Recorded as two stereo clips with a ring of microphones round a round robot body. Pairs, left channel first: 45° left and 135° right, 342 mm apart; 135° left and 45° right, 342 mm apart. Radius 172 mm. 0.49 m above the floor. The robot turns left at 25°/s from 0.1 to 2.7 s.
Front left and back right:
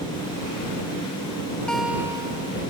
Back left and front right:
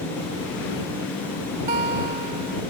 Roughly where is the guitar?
Ahead right.